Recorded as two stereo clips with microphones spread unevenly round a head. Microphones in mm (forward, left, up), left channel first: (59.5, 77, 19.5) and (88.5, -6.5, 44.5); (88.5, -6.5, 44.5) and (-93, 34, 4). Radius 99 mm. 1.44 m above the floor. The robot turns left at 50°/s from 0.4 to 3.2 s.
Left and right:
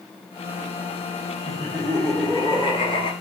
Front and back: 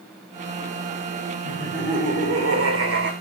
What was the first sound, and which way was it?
Laughter, 140° right.